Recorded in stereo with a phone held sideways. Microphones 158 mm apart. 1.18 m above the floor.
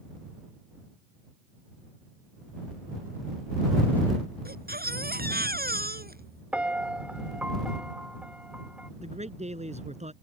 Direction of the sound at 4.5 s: 80° right.